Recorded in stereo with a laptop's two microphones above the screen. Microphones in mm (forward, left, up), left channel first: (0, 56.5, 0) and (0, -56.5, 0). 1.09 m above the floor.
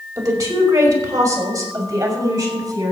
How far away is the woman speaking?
About 4.5 m.